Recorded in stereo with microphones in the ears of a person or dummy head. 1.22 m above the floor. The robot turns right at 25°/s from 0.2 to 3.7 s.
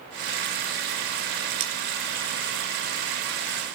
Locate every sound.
1.6 s cutlery clinking: 35° right (ahead or behind), 1.0 m; by 1.7 s 40° right (ahead or behind), 1.0 m